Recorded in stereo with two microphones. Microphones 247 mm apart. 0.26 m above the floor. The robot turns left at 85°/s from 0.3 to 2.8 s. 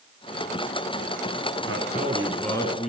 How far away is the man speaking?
About 3 m.